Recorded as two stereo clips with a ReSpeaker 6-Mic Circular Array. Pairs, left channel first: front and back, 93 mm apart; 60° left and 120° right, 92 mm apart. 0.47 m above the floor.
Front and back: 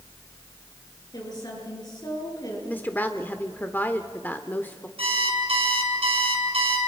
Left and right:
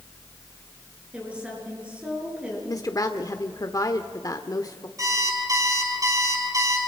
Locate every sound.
1.1 s a woman speaking: 45° right, 8 m
2.7 s a woman speaking: 60° left, 1.0 m
5.0 s an alarm clock: 170° right, 6.5 m